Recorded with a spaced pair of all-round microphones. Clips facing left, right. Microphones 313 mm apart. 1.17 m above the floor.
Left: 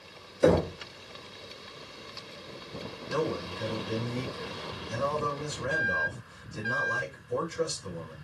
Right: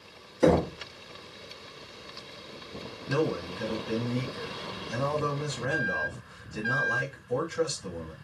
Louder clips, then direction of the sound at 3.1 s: Right 3 dB; 75° right (ahead or behind).